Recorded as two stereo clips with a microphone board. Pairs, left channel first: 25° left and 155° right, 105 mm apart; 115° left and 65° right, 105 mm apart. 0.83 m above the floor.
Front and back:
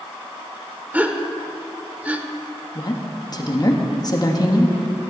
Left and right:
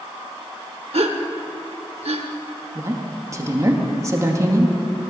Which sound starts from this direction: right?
A gasp, at 0.9 s.